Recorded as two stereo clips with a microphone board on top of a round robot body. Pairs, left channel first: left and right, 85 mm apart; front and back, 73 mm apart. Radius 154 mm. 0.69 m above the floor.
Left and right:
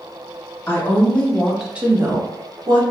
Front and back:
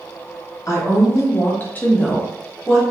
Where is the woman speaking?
35° left, 1.2 m; by 2.8 s 95° right, 1.1 m.